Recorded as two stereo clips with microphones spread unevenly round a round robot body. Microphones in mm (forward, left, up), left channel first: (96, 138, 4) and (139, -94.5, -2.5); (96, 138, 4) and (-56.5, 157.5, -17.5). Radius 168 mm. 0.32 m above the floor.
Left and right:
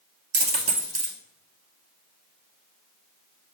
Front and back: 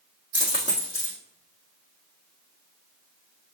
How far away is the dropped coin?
About 1.3 m.